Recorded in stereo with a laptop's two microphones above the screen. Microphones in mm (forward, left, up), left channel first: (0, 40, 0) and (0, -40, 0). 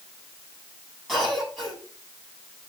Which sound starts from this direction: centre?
A cough, at 1.1 s.